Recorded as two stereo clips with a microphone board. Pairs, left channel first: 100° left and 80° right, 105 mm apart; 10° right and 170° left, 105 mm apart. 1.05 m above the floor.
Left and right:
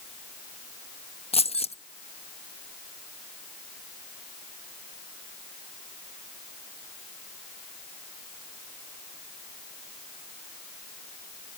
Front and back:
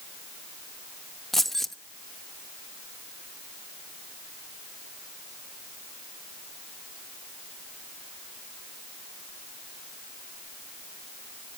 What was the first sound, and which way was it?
Keys jangling, 80° left.